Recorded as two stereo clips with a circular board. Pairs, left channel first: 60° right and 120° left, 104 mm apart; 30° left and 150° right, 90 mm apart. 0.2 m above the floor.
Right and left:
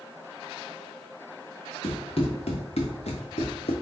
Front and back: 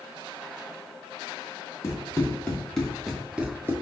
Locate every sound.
1.8 s running footsteps: 35° right, 1.7 m; by 3.7 s 85° right, 1.2 m